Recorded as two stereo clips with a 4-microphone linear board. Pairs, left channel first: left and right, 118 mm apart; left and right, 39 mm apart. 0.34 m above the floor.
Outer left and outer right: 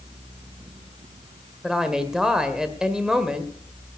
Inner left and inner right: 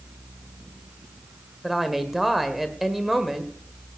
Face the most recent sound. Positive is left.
turn(degrees=-5)  # may be behind; listen again after turning